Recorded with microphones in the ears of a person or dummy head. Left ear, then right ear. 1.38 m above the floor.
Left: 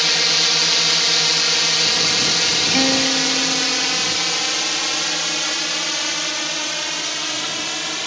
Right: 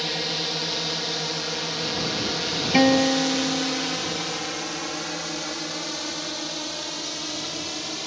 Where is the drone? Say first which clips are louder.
Left 10 dB; 50° left (ahead or behind); by 8.1 s 60° left (ahead or behind).